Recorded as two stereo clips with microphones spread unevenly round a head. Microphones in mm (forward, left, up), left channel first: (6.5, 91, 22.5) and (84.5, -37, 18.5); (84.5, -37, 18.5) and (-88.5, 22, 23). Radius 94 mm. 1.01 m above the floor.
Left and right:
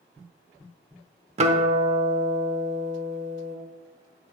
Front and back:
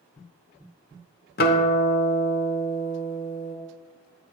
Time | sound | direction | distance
1.4 | a guitar | 30° right | 0.8 m